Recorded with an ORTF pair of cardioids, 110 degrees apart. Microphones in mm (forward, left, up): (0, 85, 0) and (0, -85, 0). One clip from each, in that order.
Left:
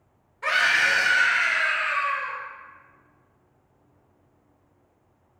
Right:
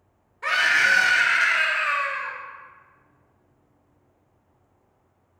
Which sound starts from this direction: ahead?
A scream, at 0.4 s.